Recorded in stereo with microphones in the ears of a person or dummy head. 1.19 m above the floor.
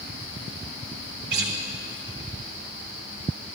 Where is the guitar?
55° right (ahead or behind), 1.2 m.